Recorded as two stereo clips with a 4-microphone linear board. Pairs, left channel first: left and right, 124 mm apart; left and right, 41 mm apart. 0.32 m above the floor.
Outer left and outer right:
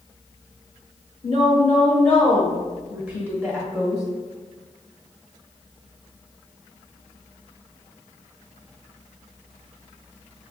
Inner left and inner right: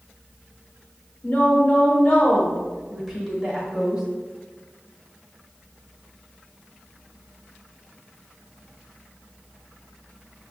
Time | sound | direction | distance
1.2 | a woman speaking | 35° left (ahead or behind) | 1.1 m